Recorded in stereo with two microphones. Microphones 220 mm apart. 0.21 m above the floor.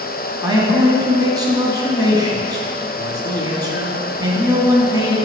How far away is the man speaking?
About 2.0 m.